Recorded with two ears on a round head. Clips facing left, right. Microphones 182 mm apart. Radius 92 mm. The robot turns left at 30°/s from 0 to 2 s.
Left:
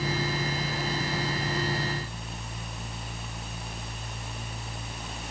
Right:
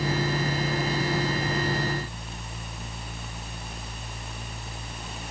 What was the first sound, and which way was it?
Only background noise.